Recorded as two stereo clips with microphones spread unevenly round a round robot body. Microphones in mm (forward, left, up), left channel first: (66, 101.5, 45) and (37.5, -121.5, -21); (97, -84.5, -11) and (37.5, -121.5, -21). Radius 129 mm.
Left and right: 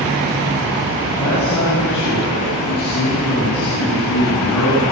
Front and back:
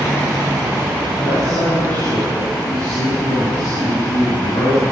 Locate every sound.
1.2 s a man speaking: 90° left, 10 m